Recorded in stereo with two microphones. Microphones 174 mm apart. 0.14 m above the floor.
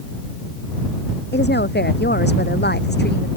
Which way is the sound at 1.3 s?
75° left (ahead or behind).